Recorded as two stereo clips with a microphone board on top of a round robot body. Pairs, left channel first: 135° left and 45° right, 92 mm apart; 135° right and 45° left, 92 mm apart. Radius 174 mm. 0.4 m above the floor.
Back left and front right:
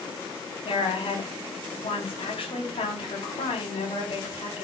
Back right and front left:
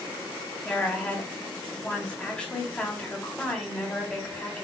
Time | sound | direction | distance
0.7 | a woman speaking | 145° left | 4.5 m